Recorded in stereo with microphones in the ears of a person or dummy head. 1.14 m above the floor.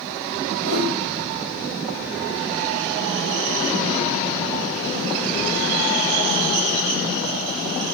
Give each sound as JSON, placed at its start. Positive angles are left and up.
{"t": 0.6, "sound": "a whoosh", "side_deg": -70, "distance_m": 1.6}